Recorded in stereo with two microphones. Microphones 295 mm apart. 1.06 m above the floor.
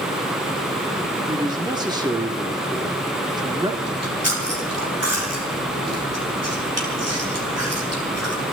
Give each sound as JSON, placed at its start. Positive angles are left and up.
{"t": 1.3, "sound": "a man speaking", "side_deg": -15, "distance_m": 2.0}
{"t": 3.9, "sound": "chewing", "side_deg": -55, "distance_m": 3.5}